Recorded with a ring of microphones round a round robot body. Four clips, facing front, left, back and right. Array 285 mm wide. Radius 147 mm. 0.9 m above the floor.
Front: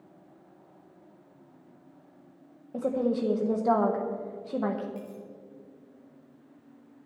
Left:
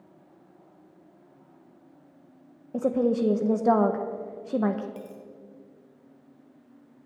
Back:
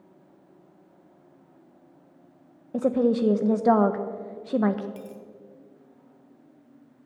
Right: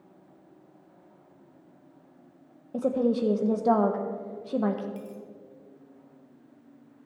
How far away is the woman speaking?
About 0.7 m.